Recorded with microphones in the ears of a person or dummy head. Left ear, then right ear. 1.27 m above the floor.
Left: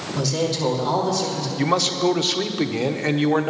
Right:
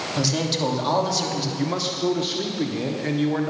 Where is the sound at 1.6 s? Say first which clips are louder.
Left 9 dB; 35° left (ahead or behind), 1.0 m.